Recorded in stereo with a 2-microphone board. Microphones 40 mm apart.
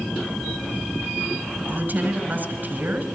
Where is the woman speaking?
50° right (ahead or behind), 2.5 m.